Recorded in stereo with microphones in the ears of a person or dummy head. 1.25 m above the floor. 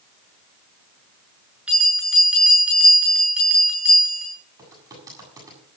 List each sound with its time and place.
1.7 s a bell: centre (ahead or behind), 7.5 m
4.6 s typing on a keyboard: 15° right (ahead or behind), 7.5 m